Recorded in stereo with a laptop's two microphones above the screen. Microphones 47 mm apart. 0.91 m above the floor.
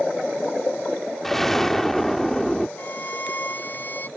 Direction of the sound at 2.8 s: 40° left (ahead or behind).